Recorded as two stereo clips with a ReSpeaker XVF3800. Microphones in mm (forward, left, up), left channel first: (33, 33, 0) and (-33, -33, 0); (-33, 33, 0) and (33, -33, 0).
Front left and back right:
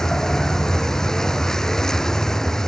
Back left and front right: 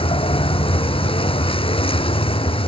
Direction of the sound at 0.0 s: 130° left.